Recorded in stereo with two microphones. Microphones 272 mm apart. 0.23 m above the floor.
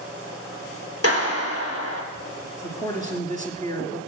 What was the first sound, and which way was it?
A clap, 60° left (ahead or behind).